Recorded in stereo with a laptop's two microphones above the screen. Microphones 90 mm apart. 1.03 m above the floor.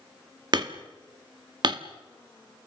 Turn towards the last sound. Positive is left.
turn(degrees=-55)  # may be behind; listen again after turning